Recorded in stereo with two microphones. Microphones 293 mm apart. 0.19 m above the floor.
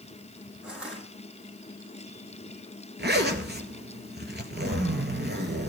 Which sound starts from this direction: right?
A zipper, at 3.0 s.